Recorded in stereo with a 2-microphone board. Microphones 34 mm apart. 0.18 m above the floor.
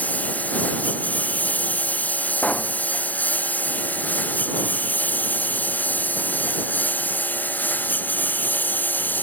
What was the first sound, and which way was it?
A lawn mower, 50° left (ahead or behind).